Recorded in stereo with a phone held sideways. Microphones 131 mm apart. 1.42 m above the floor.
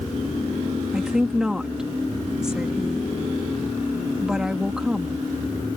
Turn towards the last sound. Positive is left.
turn(degrees=-5)  # may be behind; listen again after turning